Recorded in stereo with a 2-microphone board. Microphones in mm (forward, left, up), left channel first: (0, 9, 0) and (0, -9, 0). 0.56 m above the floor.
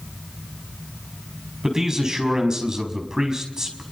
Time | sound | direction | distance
1.6 | a man speaking | 30° right (ahead or behind) | 5 m